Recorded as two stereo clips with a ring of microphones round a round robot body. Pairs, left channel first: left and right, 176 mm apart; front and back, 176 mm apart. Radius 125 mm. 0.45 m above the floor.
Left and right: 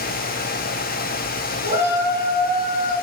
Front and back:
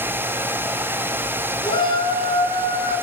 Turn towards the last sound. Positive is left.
turn(degrees=50)